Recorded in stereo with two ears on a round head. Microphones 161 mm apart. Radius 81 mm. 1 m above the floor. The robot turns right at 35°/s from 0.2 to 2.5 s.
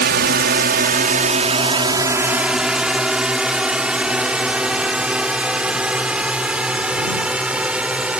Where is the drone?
60° right (ahead or behind); by 8.2 s 5° right (ahead or behind).